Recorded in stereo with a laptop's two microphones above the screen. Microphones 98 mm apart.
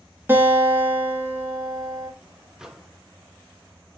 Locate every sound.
0.3 s a guitar: 25° right (ahead or behind), 1.6 m
2.6 s a microwave: 5° right (ahead or behind), 0.7 m